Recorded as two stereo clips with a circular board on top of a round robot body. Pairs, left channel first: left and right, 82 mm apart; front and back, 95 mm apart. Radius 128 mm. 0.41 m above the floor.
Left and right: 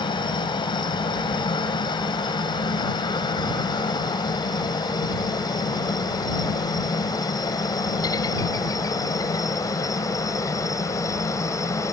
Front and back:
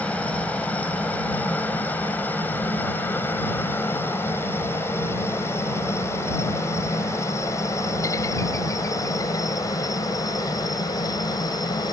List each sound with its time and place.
0.0 s a helicopter: 75° left; by 11.9 s 40° left